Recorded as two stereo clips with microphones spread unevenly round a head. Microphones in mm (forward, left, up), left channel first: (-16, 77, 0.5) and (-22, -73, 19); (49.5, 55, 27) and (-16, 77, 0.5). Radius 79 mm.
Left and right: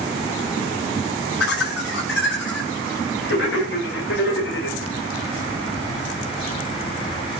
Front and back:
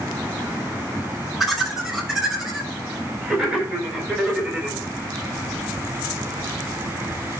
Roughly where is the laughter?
Left.